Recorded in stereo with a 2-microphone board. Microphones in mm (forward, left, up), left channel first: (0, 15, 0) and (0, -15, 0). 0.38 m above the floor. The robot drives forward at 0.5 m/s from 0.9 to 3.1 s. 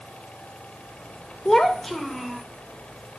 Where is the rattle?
I don't hear a rattle.